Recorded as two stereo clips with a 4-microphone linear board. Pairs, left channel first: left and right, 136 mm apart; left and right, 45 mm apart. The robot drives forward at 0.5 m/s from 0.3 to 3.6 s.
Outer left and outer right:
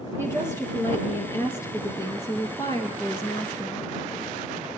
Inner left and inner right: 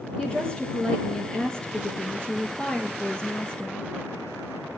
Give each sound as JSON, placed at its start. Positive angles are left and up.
{"t": 0.2, "sound": "a woman speaking", "side_deg": 20, "distance_m": 4.0}